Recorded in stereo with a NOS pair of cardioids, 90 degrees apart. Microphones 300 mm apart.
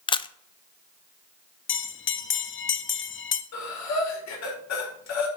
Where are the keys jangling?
No keys jangling in this recording.